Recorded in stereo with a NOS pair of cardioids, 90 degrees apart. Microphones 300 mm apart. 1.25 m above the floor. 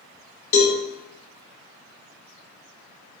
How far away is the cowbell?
About 0.9 m.